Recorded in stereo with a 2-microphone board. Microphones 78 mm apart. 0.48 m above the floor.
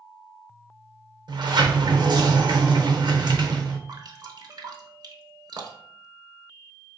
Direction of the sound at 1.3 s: 70° right (ahead or behind).